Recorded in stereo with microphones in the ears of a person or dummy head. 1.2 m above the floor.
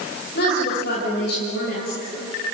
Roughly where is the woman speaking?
Left.